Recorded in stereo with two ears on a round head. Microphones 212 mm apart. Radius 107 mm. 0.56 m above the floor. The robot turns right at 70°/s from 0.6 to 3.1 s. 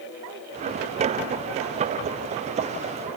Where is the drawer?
No drawer in this recording.